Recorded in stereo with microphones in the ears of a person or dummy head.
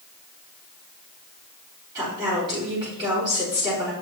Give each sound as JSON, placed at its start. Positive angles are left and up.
{"t": 1.9, "sound": "a woman speaking", "side_deg": -20, "distance_m": 5.0}